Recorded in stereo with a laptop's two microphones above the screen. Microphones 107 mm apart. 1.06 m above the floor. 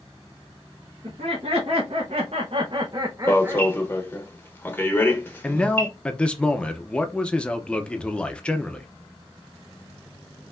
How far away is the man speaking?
About 0.6 m.